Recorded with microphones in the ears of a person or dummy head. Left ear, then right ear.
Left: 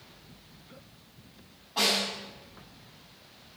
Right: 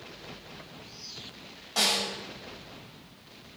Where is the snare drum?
75° right (ahead or behind), 5.5 m.